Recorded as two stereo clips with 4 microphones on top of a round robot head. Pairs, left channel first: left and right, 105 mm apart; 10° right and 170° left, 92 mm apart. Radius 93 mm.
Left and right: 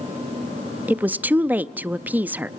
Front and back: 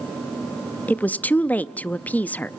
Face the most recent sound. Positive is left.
turn(degrees=-50)